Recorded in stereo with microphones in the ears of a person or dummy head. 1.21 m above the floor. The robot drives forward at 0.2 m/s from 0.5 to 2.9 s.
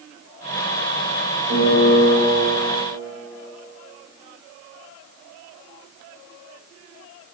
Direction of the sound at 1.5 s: 50° right (ahead or behind).